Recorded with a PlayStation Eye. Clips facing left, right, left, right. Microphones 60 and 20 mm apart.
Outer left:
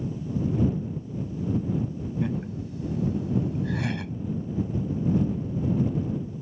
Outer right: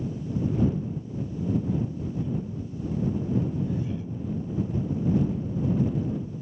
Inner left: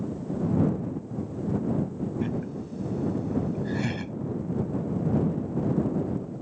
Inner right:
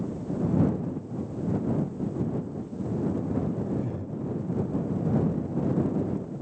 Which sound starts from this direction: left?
Laughter, at 2.2 s.